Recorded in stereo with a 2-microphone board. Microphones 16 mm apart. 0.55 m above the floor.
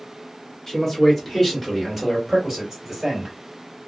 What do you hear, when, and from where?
0.7 s a man speaking: 20° left (ahead or behind), 1.5 m; by 3.4 s 20° right (ahead or behind), 2.5 m